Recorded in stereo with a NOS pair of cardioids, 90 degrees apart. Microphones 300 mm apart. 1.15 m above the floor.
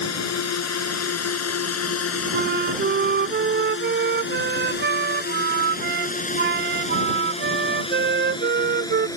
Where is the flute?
35° right.